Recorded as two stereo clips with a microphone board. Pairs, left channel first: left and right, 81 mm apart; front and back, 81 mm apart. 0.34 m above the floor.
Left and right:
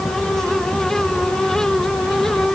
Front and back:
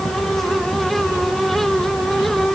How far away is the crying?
No crying in this recording.